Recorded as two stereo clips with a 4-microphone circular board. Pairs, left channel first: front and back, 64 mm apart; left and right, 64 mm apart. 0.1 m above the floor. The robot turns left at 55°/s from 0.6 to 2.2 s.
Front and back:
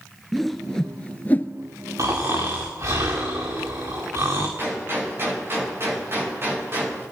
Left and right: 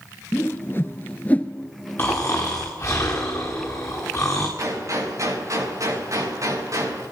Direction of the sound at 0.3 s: 85° left.